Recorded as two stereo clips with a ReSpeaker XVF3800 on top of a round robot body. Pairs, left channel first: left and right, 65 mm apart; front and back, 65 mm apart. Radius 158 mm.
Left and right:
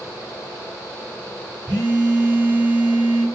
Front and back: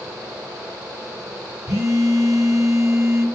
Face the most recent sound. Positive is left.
turn(degrees=-145)